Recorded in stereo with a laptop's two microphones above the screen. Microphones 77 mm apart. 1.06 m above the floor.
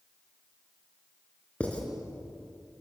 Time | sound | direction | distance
1.6 | writing | 15° left (ahead or behind) | 3.5 m